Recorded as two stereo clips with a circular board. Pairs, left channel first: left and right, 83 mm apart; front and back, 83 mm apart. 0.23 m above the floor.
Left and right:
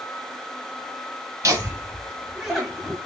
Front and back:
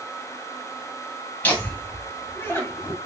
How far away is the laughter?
About 1.6 m.